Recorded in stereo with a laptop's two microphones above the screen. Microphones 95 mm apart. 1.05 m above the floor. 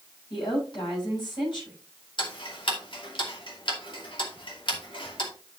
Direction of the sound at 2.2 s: 70° left (ahead or behind).